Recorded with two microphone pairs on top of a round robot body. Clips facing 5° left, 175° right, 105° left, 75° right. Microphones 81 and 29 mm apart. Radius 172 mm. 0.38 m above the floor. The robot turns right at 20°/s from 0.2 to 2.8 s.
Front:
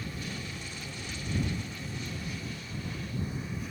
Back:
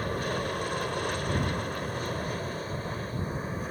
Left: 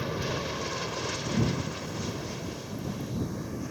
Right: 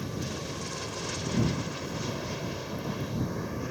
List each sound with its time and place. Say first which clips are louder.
0.0 s an aircraft: back 9 dB, left 4 dB; 170° left; by 3.7 s 135° right